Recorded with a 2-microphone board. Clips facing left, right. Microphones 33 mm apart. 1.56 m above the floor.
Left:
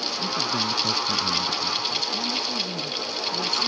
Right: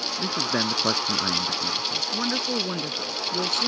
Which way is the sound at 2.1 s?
60° right (ahead or behind).